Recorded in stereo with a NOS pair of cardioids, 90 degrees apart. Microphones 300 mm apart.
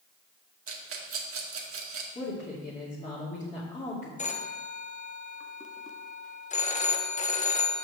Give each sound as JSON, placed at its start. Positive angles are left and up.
{"t": 0.7, "sound": "a rattle", "azimuth_deg": -50, "distance_m": 1.8}
{"t": 2.1, "sound": "a woman speaking", "azimuth_deg": 25, "distance_m": 3.0}
{"t": 4.2, "sound": "a phone ringing", "azimuth_deg": 25, "distance_m": 1.1}